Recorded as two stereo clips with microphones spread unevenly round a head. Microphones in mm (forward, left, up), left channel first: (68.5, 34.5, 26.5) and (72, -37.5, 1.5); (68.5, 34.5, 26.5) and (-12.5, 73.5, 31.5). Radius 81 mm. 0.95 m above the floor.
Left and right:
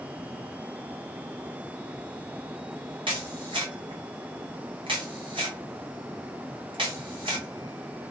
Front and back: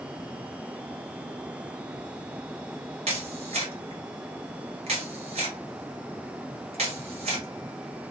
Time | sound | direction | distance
3.1 | a camera shutter | 150° right | 0.5 m